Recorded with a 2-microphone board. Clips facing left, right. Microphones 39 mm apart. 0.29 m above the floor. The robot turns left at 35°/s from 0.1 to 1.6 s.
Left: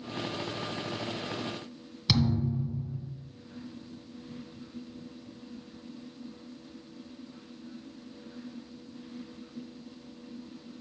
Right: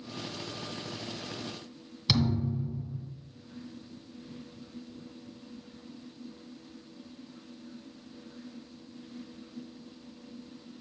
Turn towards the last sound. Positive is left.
turn(degrees=0)  # may be behind; listen again after turning